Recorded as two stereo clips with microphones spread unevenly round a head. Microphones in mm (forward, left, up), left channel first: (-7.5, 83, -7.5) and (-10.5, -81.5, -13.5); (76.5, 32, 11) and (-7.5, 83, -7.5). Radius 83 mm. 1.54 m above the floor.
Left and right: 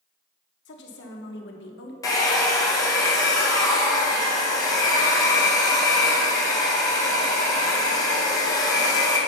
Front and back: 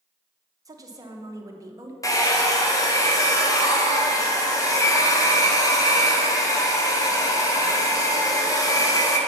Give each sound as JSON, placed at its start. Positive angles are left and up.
{"t": 0.7, "sound": "a woman speaking", "azimuth_deg": 90, "distance_m": 1.1}
{"t": 2.0, "sound": "a hair dryer", "azimuth_deg": 20, "distance_m": 1.2}